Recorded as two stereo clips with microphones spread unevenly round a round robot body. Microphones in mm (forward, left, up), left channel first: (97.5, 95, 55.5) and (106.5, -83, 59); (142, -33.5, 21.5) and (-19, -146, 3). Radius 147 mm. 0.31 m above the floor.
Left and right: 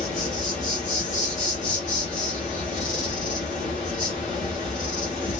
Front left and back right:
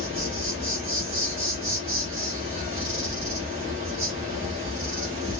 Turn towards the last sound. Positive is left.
turn(degrees=145)